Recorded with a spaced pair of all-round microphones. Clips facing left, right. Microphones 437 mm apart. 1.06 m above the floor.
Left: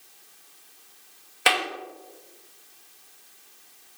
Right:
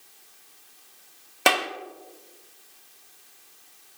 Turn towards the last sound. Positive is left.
turn(degrees=-65)  # may be behind; listen again after turning